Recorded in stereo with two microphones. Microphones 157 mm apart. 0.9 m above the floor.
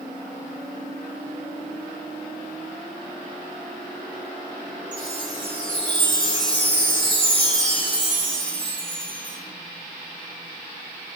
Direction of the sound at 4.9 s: 30° right (ahead or behind).